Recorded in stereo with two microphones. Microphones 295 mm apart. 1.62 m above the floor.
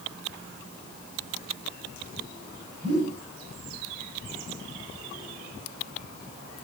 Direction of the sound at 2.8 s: 35° right (ahead or behind).